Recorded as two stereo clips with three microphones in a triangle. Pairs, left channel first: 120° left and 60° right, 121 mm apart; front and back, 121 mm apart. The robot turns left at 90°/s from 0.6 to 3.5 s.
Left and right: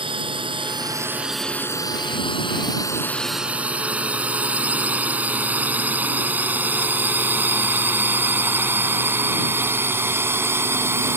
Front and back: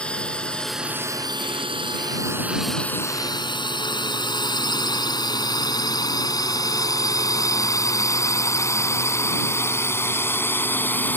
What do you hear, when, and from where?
0.0 s a drone: 80° right; by 11.2 s 40° right